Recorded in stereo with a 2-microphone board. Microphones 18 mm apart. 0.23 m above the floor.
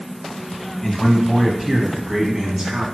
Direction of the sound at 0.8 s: 25° left (ahead or behind).